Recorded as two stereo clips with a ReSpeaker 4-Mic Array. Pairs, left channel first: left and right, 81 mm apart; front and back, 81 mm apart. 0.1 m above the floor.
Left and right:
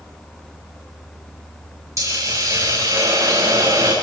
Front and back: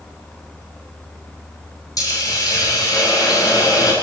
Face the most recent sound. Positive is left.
turn(degrees=-40)